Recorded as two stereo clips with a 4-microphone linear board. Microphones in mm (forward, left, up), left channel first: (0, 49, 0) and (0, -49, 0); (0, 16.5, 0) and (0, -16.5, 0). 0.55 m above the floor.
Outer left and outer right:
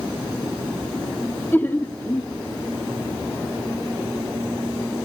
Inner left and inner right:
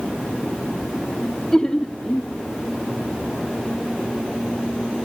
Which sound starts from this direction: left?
Laughter, at 1.5 s.